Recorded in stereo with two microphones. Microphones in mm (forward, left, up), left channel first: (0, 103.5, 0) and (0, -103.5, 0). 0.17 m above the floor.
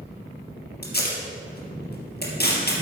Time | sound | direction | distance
0.8 | tape being pulled | 50° left (ahead or behind) | 2.5 m